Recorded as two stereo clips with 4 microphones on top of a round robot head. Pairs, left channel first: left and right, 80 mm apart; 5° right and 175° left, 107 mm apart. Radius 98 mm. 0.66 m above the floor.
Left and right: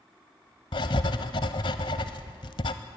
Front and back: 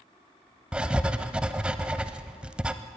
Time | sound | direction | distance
0.7 | writing | 95° left | 0.6 m